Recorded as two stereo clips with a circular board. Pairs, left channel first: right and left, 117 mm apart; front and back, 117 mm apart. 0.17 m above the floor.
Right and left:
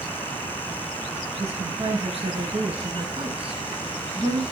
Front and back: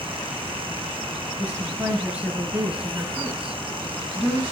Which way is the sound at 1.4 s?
105° left.